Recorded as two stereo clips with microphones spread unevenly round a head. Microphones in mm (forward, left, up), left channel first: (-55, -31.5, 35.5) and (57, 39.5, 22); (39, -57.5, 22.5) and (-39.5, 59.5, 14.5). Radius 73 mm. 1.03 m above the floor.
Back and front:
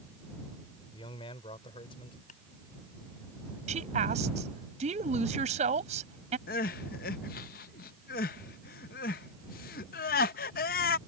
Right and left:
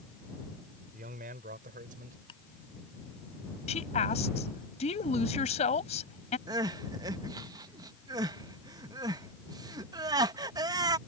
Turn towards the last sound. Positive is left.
turn(degrees=-170)